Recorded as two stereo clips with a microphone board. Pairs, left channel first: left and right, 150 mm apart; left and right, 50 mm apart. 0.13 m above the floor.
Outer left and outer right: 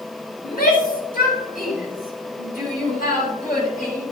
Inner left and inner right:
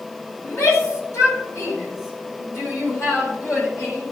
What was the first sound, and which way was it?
A shout, 75° left (ahead or behind).